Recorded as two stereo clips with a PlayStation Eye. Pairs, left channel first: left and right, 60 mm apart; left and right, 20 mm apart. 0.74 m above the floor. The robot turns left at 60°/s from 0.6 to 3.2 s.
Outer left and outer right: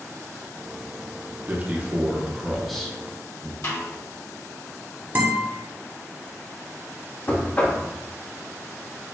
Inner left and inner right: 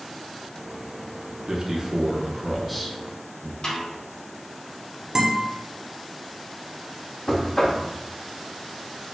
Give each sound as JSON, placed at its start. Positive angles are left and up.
{"t": 1.5, "sound": "a man speaking", "azimuth_deg": -110, "distance_m": 0.6}
{"t": 3.6, "sound": "a snare drum", "side_deg": 50, "distance_m": 1.6}
{"t": 5.2, "sound": "a guitar", "side_deg": -35, "distance_m": 0.8}
{"t": 7.3, "sound": "knocking", "side_deg": 30, "distance_m": 0.6}